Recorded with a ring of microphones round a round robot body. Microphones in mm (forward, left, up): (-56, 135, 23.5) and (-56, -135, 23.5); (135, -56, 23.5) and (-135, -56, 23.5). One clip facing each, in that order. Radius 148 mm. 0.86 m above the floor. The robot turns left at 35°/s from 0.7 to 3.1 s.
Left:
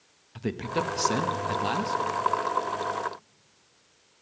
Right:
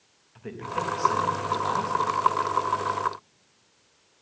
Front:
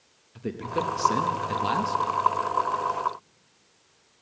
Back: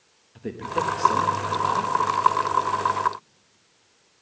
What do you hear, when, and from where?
0.3 s a man speaking: 80° left, 0.9 m; by 2.1 s 35° left, 0.9 m